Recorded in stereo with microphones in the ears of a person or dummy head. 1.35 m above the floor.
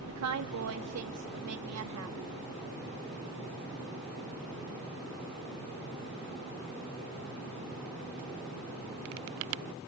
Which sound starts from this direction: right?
A woman speaking, at 0.1 s.